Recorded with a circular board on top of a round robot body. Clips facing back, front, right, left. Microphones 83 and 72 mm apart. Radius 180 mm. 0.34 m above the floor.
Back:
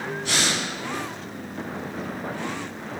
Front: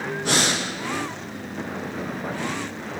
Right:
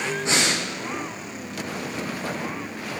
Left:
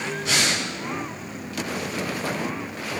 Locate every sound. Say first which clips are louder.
0.2 s breathing: front 4 dB, even; 30° right, 5.5 m